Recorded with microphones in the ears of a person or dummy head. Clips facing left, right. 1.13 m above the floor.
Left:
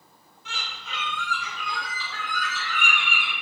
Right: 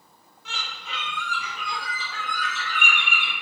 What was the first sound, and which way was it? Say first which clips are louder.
A bird: right 1 dB; 70° right (ahead or behind).